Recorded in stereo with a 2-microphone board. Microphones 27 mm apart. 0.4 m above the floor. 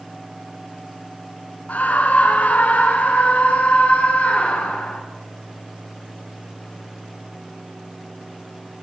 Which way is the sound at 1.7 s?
70° left (ahead or behind).